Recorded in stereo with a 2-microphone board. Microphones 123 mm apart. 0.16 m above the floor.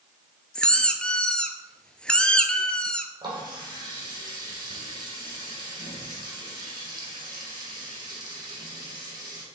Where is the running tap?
35° right (ahead or behind), 4 m.